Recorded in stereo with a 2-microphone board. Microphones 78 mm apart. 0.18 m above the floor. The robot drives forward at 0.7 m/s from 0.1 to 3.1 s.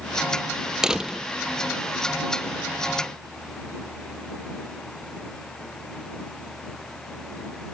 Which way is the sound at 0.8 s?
10° right (ahead or behind).